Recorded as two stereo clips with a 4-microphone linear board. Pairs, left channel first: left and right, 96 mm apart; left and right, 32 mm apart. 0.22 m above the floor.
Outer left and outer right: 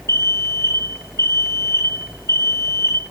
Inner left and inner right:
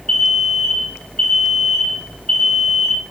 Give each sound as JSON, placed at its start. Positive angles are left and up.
{"t": 0.1, "sound": "an alarm", "side_deg": 30, "distance_m": 5.5}